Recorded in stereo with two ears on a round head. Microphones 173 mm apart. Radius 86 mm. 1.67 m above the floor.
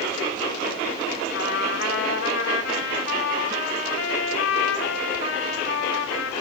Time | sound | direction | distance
1.3 | a trumpet | 70° left (ahead or behind) | 2.5 m